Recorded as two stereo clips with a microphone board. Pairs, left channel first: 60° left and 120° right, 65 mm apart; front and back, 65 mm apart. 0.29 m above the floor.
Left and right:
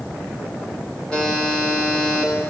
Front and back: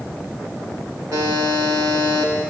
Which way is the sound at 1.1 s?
135° left.